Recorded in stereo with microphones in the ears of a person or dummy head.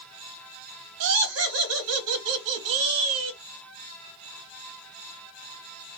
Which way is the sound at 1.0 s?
65° right (ahead or behind).